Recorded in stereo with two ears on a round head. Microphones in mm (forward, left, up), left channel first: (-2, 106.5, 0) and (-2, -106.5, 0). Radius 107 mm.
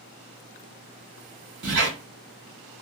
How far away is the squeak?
About 1.3 m.